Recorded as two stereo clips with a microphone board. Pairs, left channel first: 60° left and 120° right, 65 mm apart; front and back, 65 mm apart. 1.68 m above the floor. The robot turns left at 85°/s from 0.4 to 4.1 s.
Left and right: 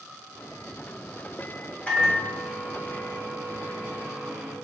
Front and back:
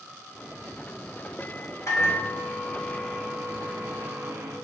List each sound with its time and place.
1.9 s a microwave: straight ahead, 0.8 m; by 4.5 s 170° left, 0.8 m